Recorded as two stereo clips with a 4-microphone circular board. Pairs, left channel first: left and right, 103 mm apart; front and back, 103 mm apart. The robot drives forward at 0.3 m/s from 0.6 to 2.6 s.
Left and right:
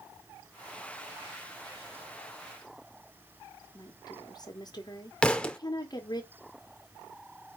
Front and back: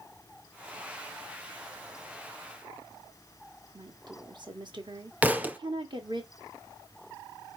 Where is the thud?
150° left, 0.5 m.